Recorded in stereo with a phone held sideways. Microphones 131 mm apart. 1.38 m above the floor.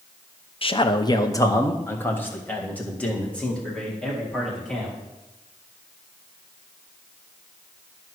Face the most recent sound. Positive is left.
turn(degrees=5)  # may be behind; listen again after turning